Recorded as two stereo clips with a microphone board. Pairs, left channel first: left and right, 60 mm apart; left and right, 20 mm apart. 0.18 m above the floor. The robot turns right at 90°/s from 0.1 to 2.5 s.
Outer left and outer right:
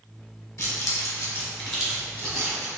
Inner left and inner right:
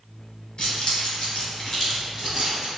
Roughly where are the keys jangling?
Left.